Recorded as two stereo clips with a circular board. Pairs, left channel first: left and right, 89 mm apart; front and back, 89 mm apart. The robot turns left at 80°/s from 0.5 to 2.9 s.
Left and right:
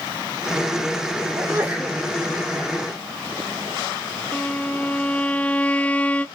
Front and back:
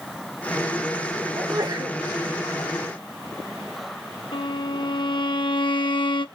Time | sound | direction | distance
1.4 | a sneeze | 130° right | 1.5 m
4.3 | a violin | 15° left | 0.8 m